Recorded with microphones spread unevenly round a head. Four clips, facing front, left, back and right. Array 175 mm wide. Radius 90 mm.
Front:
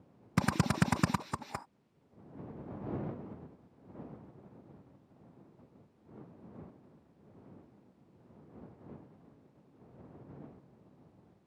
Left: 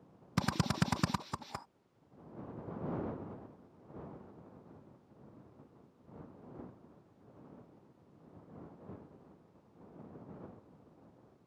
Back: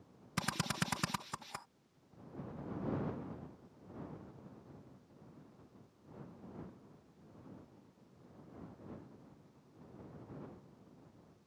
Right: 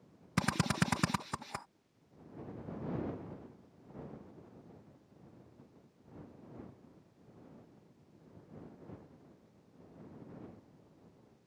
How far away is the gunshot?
I don't hear a gunshot.